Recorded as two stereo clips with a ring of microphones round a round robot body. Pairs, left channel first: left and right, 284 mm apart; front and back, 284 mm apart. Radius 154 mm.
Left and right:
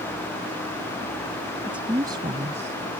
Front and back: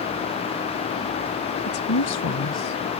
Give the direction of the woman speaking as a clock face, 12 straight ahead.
12 o'clock.